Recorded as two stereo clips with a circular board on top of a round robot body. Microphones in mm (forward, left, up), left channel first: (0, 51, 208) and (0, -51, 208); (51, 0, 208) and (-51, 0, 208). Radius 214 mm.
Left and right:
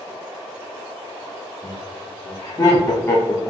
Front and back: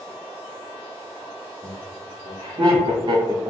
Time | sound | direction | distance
1.6 | laughter | 140° left | 1.6 m